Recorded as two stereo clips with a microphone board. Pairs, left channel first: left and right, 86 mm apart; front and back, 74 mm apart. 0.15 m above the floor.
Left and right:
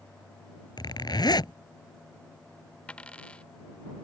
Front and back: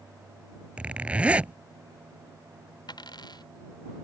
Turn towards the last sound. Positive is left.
turn(degrees=15)